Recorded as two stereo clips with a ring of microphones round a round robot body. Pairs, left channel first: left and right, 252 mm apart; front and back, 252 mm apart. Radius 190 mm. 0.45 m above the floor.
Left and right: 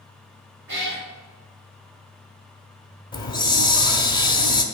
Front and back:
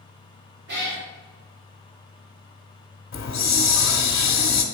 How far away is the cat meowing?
About 3.5 m.